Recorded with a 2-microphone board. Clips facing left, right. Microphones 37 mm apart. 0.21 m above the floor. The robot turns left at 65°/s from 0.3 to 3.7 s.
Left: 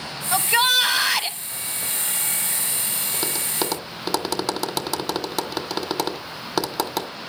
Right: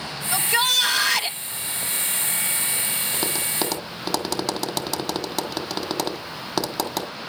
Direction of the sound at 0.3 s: 25° left (ahead or behind).